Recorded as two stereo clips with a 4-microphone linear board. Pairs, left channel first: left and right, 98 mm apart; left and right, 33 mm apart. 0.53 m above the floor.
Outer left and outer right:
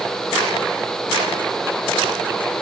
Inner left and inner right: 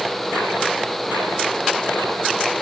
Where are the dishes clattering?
I don't hear dishes clattering.